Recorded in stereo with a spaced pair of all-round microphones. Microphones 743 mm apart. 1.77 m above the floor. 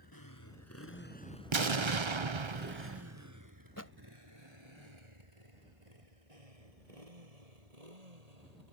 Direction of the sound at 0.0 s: 30° left (ahead or behind).